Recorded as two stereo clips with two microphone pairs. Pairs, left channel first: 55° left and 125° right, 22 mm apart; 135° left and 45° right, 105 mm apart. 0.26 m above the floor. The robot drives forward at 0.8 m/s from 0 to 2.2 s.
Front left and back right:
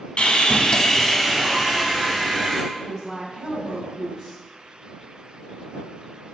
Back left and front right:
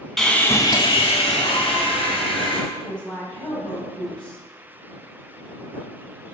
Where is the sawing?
50° left, 0.6 m; by 2.6 s 160° left, 1.3 m.